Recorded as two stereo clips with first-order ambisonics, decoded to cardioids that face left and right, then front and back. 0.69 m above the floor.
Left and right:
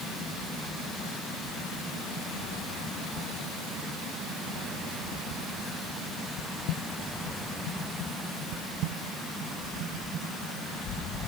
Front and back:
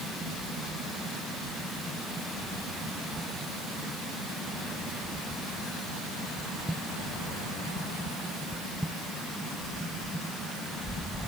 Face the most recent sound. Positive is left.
No sound to turn to.